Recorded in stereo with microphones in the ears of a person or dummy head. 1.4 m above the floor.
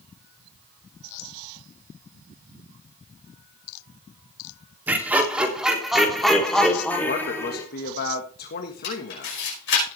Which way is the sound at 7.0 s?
50° left (ahead or behind).